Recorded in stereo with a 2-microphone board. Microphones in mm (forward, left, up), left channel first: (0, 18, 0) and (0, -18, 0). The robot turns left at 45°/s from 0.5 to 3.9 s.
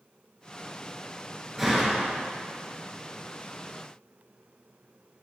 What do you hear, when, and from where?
1.6 s a door slam: 5° right (ahead or behind), 1.4 m; by 2.2 s 20° left (ahead or behind), 1.4 m